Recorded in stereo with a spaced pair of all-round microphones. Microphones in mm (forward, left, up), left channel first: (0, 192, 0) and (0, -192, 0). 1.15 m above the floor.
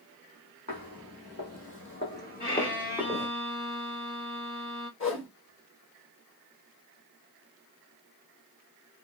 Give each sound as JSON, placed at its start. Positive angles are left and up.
{"t": 0.7, "sound": "footsteps", "side_deg": 45, "distance_m": 2.0}
{"t": 2.4, "sound": "a violin", "side_deg": 25, "distance_m": 1.3}
{"t": 5.0, "sound": "a whoosh", "side_deg": 35, "distance_m": 1.4}